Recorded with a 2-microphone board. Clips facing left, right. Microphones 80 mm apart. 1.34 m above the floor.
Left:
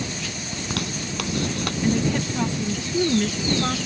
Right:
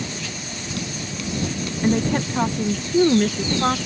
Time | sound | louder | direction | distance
0.5 | a zipper | left 2 dB | 65° left (ahead or behind) | ?
1.8 | a woman speaking | right 3 dB | 40° right (ahead or behind) | ?